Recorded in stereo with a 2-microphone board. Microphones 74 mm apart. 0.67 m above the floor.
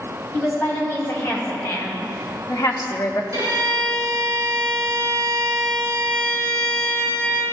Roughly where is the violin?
Right.